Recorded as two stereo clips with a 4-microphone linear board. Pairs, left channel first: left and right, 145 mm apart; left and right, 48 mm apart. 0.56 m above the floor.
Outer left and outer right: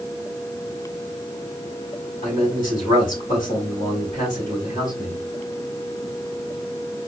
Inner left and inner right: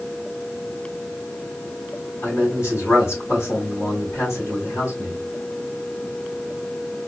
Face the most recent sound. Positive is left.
turn(degrees=70)  # may be behind; listen again after turning